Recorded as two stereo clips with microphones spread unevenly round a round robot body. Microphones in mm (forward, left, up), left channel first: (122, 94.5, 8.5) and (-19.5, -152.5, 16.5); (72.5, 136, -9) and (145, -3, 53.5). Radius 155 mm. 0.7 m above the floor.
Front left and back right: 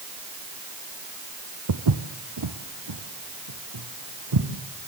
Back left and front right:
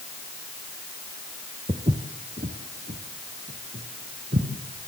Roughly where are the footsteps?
Behind right.